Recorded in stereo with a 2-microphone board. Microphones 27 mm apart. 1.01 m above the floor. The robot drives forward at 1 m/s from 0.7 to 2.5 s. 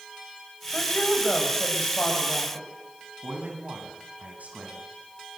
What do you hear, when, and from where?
0.7 s a woman speaking: 60° left (ahead or behind), 6 m; by 2.6 s 50° left (ahead or behind), 7 m
3.2 s a man speaking: 80° right, 8 m